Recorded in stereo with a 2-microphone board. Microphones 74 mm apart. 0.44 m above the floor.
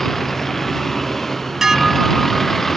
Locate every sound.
0.0 s a vehicle: 5° left (ahead or behind)
1.6 s dishes clattering: 5° right (ahead or behind)